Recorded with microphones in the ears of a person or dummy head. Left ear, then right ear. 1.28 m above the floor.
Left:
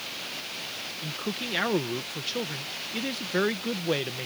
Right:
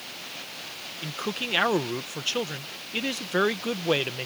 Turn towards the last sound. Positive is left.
turn(degrees=-35)  # may be behind; listen again after turning